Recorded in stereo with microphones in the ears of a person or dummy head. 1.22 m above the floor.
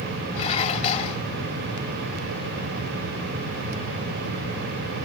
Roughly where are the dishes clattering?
Left.